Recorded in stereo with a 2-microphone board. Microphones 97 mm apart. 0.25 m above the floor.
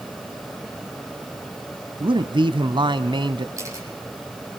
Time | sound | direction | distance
2.0 | a man speaking | 55° right (ahead or behind) | 1.6 m
3.6 | a camera shutter | 30° right (ahead or behind) | 6 m